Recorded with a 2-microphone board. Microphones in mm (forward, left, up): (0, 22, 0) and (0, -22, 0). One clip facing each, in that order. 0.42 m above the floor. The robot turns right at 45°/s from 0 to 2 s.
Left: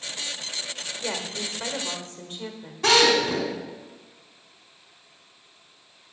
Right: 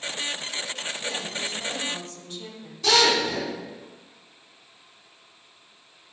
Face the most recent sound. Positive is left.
turn(degrees=60)  # may be behind; listen again after turning